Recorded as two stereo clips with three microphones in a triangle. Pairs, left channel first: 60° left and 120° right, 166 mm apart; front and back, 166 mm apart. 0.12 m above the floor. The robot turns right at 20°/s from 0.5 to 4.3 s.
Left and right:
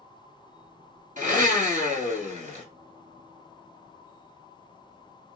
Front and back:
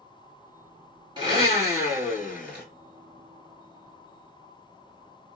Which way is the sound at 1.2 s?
125° right.